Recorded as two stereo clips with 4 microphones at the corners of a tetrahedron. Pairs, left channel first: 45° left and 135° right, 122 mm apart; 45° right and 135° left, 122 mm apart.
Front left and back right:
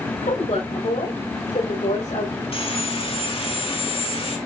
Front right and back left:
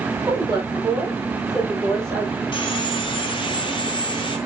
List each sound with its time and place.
0.2 s a woman speaking: 65° left, 5.5 m; by 2.4 s 30° left, 4.5 m
2.5 s sawing: 5° left, 2.0 m